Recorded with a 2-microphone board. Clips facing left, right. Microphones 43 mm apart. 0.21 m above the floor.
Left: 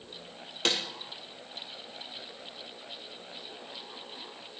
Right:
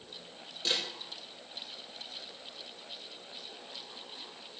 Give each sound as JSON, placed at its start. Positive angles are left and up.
{"t": 0.7, "sound": "a snare drum", "side_deg": 70, "distance_m": 3.5}